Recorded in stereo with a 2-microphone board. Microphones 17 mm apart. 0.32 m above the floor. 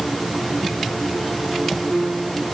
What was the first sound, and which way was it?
Only background noise.